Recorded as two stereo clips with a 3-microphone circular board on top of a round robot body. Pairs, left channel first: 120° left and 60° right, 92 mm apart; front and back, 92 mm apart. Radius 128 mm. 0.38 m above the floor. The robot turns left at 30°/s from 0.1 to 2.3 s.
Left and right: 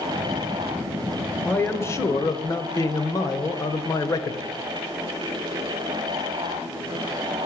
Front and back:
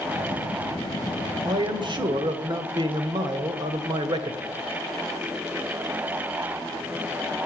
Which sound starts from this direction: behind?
A man speaking, at 1.4 s.